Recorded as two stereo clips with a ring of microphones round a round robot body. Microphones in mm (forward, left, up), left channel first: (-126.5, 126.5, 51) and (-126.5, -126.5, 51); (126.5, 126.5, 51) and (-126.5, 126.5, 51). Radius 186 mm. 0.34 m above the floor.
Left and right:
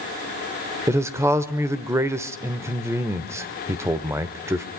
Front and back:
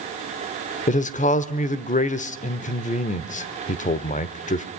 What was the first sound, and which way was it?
A man speaking, 20° right.